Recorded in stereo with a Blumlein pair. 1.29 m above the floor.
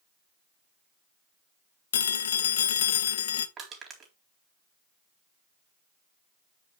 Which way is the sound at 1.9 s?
60° left.